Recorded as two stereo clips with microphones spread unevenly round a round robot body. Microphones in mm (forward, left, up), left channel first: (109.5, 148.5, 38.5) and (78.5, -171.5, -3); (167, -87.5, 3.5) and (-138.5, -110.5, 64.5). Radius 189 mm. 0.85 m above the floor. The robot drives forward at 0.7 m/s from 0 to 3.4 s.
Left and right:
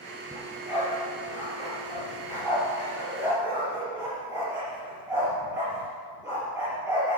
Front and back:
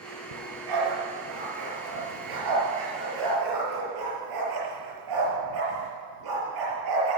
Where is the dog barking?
175° left, 3.5 m.